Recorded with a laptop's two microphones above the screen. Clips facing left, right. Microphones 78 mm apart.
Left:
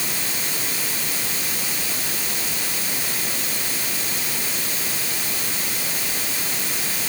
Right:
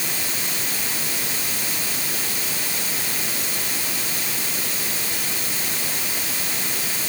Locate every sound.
Only background noise.